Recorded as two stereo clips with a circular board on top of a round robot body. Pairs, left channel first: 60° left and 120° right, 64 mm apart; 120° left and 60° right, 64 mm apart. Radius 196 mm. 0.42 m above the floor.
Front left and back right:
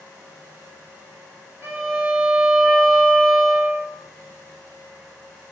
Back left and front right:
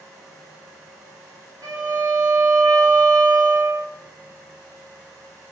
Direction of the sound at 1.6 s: 65° right.